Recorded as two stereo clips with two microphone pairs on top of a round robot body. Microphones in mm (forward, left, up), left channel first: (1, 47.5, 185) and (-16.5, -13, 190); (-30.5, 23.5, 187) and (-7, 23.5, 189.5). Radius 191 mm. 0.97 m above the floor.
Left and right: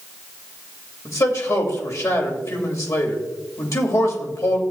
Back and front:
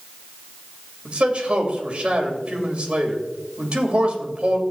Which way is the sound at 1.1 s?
45° left.